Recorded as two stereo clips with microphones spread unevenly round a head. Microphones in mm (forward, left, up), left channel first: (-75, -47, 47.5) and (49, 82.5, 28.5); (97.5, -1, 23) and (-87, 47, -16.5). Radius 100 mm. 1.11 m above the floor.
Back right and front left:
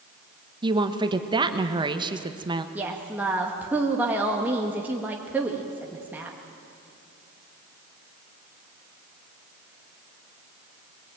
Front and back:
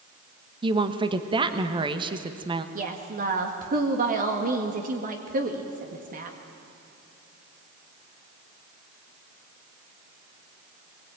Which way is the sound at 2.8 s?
125° left.